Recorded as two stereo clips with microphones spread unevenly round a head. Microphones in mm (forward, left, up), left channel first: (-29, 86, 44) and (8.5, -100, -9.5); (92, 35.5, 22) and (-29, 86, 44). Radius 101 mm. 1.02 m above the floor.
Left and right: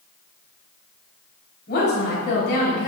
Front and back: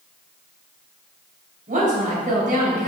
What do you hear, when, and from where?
1.7 s a woman speaking: 140° left, 5.5 m; by 2.9 s 150° left, 6 m